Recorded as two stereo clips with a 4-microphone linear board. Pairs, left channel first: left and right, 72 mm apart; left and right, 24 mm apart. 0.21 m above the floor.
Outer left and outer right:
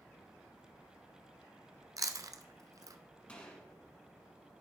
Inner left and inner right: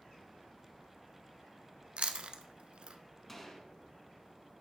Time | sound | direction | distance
2.0 | chewing | 60° right (ahead or behind) | 0.6 m
3.3 | a gunshot | 15° left (ahead or behind) | 1.1 m